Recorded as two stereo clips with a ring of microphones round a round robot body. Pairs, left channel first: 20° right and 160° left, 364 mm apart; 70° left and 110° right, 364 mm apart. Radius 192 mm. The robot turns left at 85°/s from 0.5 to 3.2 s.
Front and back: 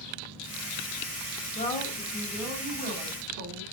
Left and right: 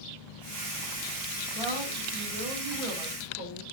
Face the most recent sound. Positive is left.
turn(degrees=135)